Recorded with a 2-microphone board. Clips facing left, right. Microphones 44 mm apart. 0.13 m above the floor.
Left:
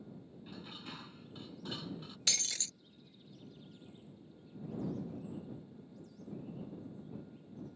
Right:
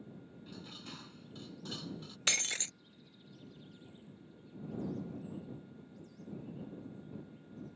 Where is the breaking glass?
40° right (ahead or behind).